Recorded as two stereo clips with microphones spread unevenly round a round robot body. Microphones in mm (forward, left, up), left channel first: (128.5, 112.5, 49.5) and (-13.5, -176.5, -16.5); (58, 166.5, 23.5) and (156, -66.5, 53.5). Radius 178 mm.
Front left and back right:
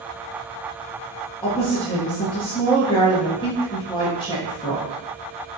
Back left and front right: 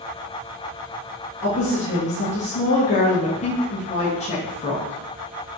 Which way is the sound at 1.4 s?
145° left.